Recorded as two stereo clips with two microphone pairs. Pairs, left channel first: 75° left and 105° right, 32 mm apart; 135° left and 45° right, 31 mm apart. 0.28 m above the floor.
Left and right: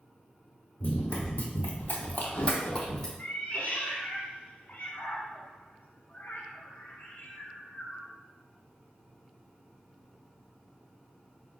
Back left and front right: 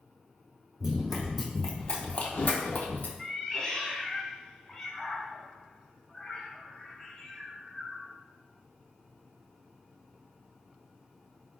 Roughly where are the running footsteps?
Ahead left.